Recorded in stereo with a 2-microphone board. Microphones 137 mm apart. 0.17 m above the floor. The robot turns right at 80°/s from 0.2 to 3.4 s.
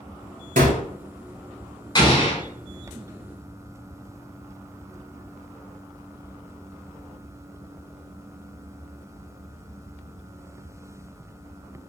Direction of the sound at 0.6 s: 75° right (ahead or behind).